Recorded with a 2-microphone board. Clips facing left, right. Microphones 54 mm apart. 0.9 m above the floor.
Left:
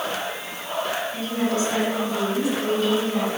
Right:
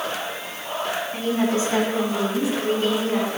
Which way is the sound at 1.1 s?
30° right (ahead or behind).